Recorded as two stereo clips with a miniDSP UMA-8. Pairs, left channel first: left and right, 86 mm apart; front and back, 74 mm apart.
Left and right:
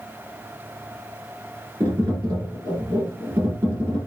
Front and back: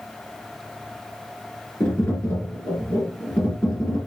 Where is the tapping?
55° right, 4.5 m.